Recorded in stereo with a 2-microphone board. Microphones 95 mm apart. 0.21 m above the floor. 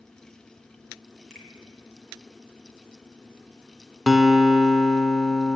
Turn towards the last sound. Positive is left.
turn(degrees=0)  # may be behind; listen again after turning